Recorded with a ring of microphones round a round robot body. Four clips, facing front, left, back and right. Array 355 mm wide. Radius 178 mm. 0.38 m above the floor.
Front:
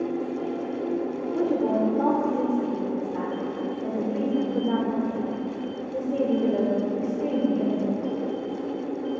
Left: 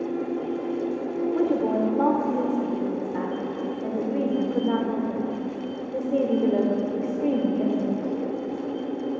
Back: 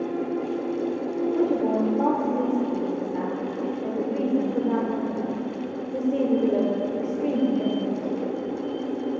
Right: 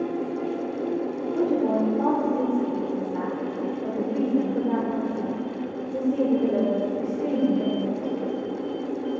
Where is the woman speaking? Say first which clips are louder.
Right 1 dB, even; 105° left, 0.9 m.